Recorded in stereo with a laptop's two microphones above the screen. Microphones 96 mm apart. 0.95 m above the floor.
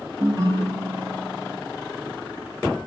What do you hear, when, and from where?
0.2 s a ringtone: 40° right (ahead or behind), 4 m